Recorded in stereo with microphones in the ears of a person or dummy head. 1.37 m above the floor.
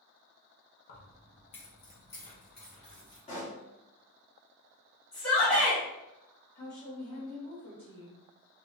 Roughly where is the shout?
Centre.